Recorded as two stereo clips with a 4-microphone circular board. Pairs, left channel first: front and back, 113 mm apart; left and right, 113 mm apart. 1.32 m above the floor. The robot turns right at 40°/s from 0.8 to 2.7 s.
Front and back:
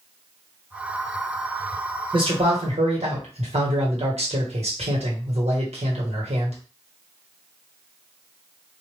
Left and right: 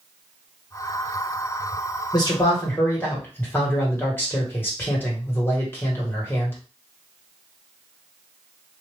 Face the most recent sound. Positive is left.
turn(degrees=160)